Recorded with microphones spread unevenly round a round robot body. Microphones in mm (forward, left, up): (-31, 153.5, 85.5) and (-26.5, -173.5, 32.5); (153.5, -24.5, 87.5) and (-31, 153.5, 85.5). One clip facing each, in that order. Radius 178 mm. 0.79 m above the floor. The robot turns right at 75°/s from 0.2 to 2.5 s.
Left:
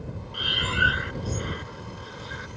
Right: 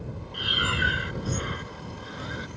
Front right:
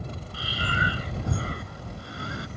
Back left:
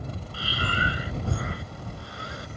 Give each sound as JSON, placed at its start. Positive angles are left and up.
{"t": 0.3, "sound": "breathing", "azimuth_deg": 170}